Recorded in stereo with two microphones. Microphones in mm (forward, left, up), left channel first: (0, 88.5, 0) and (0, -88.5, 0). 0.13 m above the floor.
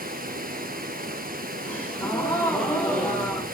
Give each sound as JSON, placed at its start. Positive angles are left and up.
{"t": 0.0, "sound": "running water", "side_deg": -55, "distance_m": 1.5}
{"t": 1.6, "sound": "a gasp", "side_deg": 10, "distance_m": 9.0}